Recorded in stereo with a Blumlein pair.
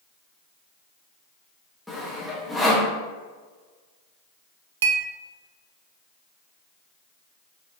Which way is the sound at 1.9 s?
5° left.